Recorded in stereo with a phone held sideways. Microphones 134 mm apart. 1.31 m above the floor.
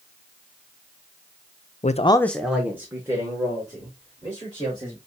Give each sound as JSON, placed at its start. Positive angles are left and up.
{"t": 1.8, "sound": "a man speaking", "side_deg": 70, "distance_m": 0.5}